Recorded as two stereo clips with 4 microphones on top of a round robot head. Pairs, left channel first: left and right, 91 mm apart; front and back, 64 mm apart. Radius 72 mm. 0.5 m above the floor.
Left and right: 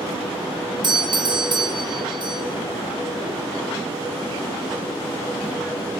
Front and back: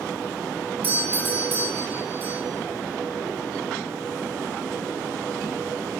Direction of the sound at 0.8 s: 120° right.